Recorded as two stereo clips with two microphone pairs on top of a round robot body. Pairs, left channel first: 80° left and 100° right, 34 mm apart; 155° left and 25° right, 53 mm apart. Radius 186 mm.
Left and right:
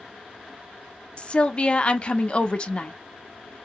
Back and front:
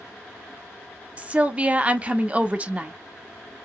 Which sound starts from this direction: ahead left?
A woman speaking, at 1.2 s.